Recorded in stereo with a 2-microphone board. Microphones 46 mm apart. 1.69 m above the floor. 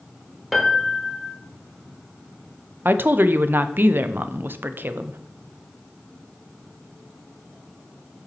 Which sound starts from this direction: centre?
A piano, at 0.5 s.